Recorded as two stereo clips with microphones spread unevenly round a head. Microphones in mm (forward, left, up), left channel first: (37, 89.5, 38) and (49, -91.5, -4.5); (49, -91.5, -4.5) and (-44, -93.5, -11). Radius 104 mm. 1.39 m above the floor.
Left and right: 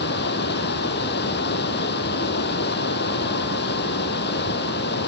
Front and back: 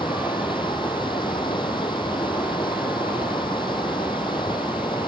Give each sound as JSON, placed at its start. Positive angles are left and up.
{"t": 0.0, "sound": "running water", "azimuth_deg": 65}